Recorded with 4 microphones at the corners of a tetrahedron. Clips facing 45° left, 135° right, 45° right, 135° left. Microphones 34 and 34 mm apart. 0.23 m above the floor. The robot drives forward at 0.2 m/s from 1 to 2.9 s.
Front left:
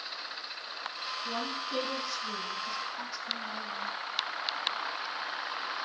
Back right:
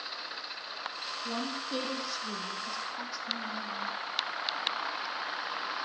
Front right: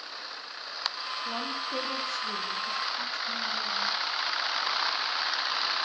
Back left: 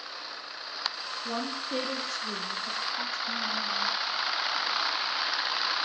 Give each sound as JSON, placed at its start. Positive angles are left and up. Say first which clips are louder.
{"t": 1.2, "sound": "a woman speaking", "louder": "even, back left 2 dB", "azimuth_deg": 145, "distance_m": 8.0}